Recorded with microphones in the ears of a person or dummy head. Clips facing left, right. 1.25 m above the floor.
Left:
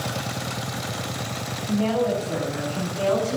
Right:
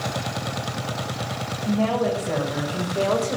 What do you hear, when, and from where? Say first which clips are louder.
1.6 s a woman speaking: even; 70° right (ahead or behind), 5 m; by 3.4 s 60° right (ahead or behind), 4 m